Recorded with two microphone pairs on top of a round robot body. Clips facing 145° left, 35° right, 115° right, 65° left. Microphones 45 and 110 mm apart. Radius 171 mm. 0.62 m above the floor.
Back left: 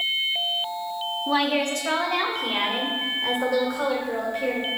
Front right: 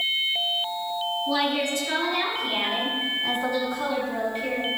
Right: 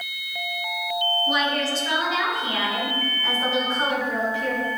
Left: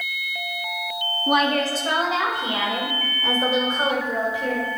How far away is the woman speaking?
About 1.4 m.